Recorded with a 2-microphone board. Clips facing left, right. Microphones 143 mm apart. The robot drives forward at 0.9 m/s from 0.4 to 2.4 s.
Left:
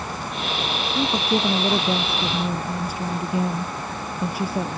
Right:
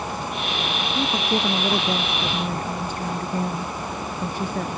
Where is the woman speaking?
5° left (ahead or behind); by 4.8 s 10° left (ahead or behind).